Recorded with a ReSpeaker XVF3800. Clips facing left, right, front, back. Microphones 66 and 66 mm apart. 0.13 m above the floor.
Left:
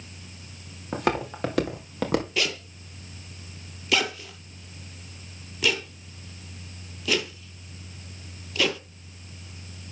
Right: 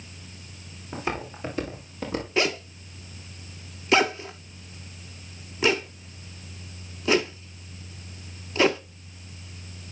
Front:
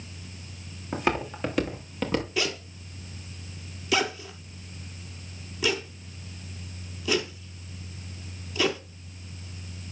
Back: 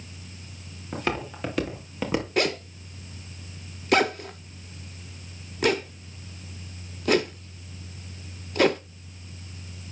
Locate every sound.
0.9 s footsteps: 75° left, 3.5 m; by 2.3 s 110° left, 2.5 m
2.4 s a zipper: 145° right, 0.6 m